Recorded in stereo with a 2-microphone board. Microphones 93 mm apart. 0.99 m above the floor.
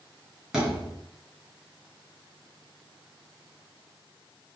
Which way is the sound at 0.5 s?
5° right (ahead or behind).